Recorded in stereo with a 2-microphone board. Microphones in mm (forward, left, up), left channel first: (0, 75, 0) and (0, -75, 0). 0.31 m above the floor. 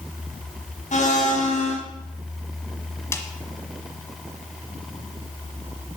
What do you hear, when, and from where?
0.9 s a blender: 55° left (ahead or behind), 2.5 m
3.1 s a snare drum: 20° left (ahead or behind), 1.2 m